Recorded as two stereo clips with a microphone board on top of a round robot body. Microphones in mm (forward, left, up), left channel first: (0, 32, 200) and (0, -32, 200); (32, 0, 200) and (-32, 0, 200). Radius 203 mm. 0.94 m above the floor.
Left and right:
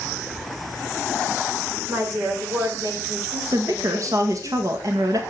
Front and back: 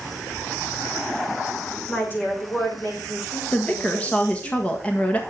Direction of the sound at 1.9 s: 60° right.